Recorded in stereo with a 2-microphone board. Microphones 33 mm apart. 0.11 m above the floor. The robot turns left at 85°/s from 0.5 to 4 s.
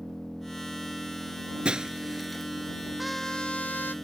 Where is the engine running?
15° left; by 4.0 s 80° left.